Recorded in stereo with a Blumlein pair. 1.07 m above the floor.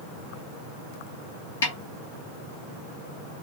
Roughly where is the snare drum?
Ahead left.